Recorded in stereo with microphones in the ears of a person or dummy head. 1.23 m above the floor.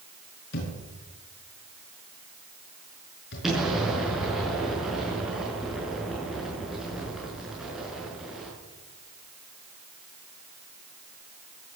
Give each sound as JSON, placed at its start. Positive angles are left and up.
{"t": 0.5, "sound": "a thud", "side_deg": 60, "distance_m": 5.5}
{"t": 3.4, "sound": "an explosion", "side_deg": -5, "distance_m": 6.0}